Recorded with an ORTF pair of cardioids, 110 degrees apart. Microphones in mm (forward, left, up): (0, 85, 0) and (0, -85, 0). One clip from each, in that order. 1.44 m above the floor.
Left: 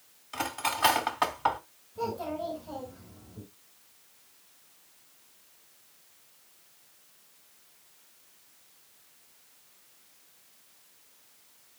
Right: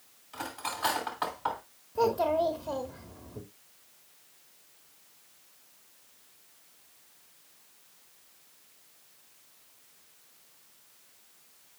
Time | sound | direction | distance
0.3 | cutlery clinking | 45° left | 2.5 m
1.9 | a child speaking | 65° right | 2 m